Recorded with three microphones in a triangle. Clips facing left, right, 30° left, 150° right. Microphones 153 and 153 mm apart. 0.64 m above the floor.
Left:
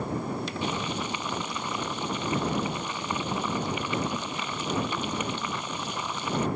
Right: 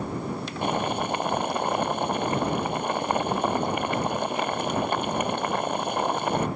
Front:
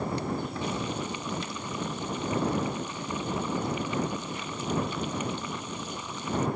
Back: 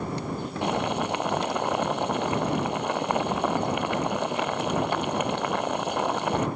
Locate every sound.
0.6 s boiling: 125° right